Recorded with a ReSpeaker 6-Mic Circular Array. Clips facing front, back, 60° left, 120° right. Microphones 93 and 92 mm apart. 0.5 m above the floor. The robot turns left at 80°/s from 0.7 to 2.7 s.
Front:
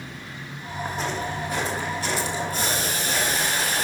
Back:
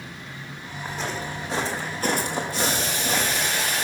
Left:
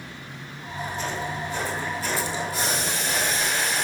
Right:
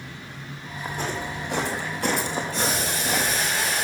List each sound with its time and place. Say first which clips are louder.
0.8 s footsteps: front 2 dB, right 1 dB; 75° right, 1.8 m; by 3.5 s 135° right, 1.3 m
2.5 s boiling: back 1 dB, right 1 dB; 20° right, 1.7 m; by 3.9 s 35° right, 1.7 m